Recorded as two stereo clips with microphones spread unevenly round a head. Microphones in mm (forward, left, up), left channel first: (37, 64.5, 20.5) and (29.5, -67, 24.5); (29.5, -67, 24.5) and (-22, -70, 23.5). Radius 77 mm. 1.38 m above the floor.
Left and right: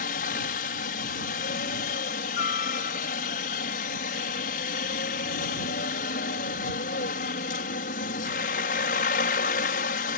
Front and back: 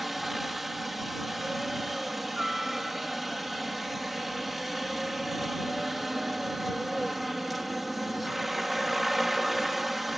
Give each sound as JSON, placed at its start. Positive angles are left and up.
{"t": 0.0, "sound": "a helicopter", "azimuth_deg": 95}